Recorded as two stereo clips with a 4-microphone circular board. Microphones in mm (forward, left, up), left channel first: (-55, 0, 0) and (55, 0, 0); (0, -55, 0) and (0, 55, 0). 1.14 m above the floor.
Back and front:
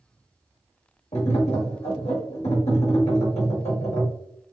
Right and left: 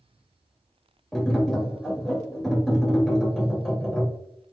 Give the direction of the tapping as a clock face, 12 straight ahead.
6 o'clock.